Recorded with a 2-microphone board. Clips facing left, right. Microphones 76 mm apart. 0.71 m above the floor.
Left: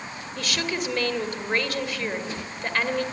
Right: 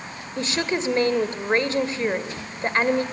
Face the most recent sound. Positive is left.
turn(degrees=-25)  # may be behind; listen again after turning